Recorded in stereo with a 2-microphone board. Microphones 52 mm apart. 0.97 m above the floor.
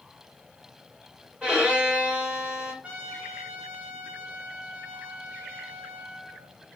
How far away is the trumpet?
About 0.9 m.